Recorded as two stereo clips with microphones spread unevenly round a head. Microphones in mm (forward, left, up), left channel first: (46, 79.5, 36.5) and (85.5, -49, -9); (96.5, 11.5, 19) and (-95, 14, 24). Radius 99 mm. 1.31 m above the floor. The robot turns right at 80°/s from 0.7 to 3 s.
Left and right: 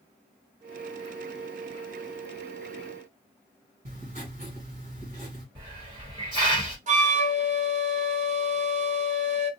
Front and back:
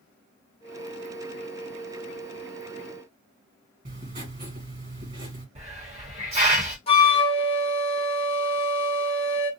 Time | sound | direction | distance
3.9 | writing | 135° right | 1.8 m
5.5 | a hiss | 125° right | 1.2 m
6.9 | a flute | 60° right | 1.0 m